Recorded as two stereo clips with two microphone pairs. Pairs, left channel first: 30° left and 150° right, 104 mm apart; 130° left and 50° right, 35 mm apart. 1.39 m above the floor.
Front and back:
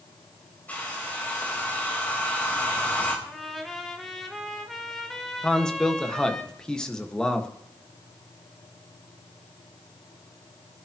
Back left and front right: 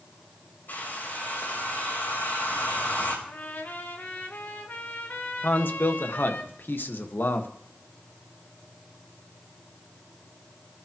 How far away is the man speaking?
About 1.6 m.